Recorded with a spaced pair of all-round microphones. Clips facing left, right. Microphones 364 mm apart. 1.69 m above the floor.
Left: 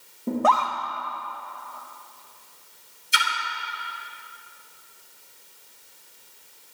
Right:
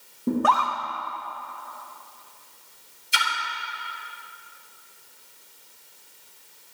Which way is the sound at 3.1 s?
Centre (ahead or behind).